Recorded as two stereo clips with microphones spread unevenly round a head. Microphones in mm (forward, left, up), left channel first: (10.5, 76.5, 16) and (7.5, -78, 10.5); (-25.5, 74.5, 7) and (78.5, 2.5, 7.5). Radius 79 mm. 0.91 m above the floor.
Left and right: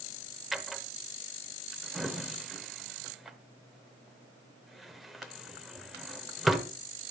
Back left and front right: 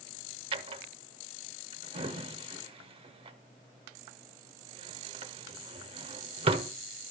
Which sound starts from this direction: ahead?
A drawer, at 0.5 s.